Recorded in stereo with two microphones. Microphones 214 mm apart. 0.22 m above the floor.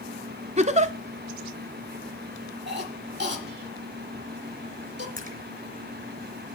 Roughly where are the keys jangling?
I don't hear keys jangling.